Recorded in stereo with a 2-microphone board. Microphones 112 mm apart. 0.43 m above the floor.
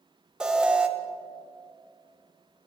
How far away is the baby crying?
No baby crying in this recording.